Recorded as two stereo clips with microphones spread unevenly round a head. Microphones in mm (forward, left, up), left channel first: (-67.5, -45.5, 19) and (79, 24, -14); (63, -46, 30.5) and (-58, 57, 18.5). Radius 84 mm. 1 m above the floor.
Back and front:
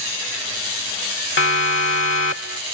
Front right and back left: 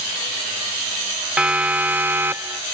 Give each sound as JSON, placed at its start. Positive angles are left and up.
{"t": 1.4, "sound": "a siren", "azimuth_deg": -135}